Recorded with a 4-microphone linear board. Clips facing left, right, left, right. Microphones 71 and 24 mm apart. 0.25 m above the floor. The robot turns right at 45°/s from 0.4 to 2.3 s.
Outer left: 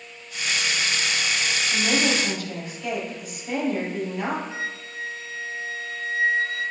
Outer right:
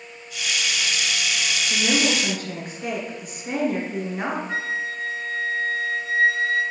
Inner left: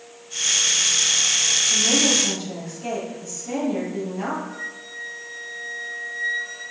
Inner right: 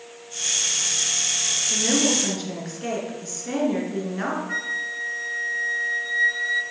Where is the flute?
65° right (ahead or behind), 2 m.